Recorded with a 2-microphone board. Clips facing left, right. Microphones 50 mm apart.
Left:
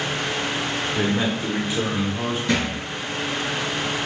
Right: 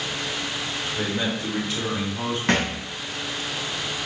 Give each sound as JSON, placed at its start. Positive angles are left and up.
{"t": 0.9, "sound": "a man speaking", "side_deg": 30, "distance_m": 1.1}
{"t": 2.5, "sound": "a thud", "side_deg": -60, "distance_m": 1.3}